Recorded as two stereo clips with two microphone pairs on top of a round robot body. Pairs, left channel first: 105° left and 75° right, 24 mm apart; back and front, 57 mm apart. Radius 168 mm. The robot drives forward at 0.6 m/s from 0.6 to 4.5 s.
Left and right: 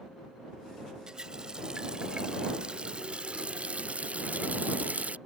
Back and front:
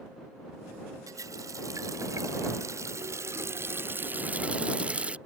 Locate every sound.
1.1 s a running tap: 20° right; by 5.2 s 70° right